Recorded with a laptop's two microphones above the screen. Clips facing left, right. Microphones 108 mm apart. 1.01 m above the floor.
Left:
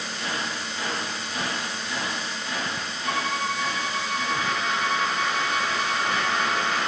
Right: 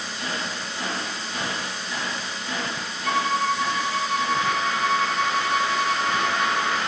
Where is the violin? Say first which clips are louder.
Right 5 dB; 35° left (ahead or behind), 1.8 m.